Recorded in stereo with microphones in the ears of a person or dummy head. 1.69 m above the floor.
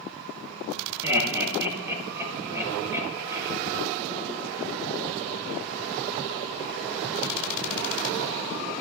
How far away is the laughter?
About 1.7 m.